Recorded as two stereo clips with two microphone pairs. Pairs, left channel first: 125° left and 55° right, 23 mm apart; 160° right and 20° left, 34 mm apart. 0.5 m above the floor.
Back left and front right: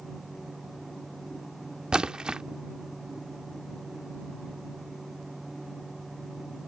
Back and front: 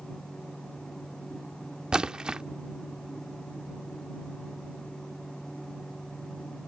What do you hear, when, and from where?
1.9 s a splash: 35° right